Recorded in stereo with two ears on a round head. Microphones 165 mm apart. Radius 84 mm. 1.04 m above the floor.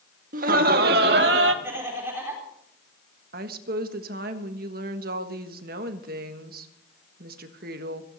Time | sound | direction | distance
0.3 | laughter | 45° right (ahead or behind) | 1.4 m
1.6 | laughter | 15° right (ahead or behind) | 4 m
3.3 | a woman speaking | 50° right (ahead or behind) | 1.4 m